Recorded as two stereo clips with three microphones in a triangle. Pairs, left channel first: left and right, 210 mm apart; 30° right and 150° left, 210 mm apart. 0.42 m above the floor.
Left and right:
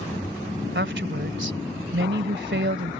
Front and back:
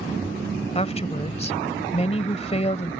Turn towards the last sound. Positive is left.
turn(degrees=-85)